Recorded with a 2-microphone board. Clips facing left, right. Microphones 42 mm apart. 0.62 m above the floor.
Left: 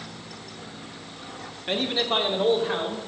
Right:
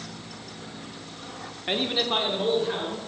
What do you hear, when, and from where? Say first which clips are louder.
1.7 s a man speaking: left 1 dB; 20° right (ahead or behind), 1.1 m; by 3.1 s 15° left (ahead or behind), 2.5 m